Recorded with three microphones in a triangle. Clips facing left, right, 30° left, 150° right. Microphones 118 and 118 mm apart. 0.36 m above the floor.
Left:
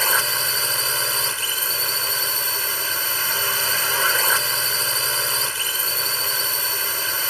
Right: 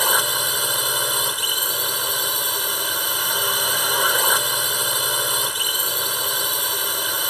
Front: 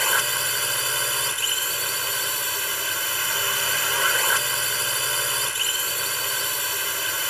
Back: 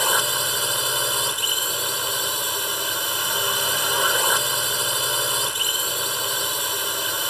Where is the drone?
135° right.